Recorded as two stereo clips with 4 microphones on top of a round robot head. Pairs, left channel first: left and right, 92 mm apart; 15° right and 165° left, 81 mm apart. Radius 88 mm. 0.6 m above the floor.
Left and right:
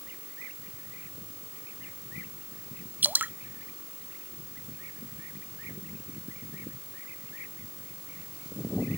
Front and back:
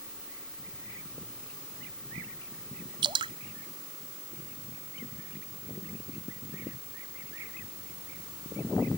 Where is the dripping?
160° right.